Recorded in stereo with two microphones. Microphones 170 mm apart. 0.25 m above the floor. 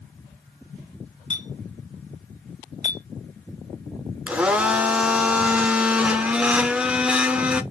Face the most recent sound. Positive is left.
turn(degrees=-5)  # may be behind; listen again after turning